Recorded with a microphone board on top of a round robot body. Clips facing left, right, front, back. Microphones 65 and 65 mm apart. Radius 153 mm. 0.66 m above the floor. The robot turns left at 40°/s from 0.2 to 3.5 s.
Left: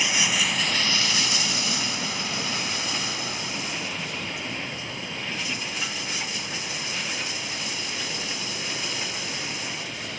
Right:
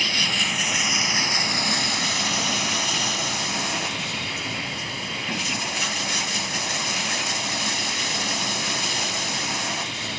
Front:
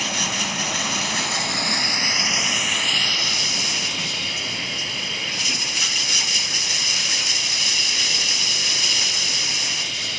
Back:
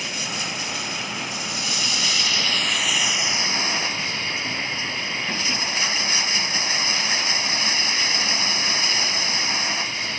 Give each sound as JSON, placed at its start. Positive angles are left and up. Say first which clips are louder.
{"t": 0.0, "sound": "running water", "louder": "even, front 4 dB", "azimuth_deg": 15}